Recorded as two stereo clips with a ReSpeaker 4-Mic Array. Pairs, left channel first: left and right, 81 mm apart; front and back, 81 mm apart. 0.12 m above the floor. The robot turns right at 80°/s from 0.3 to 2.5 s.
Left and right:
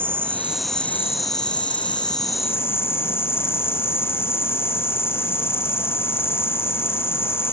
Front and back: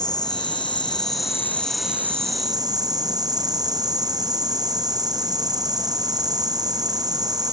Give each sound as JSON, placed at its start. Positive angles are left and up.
{"t": 0.0, "sound": "an insect", "azimuth_deg": -25, "distance_m": 1.4}